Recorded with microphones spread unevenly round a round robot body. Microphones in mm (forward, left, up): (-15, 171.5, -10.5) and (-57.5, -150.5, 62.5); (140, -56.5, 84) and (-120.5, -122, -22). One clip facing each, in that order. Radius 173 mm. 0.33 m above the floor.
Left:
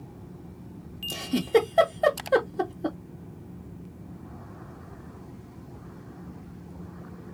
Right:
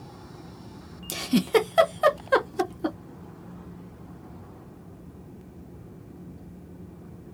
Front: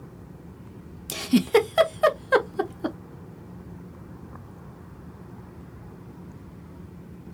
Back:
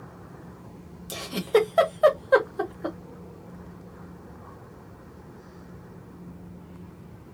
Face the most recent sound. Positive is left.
turn(degrees=-35)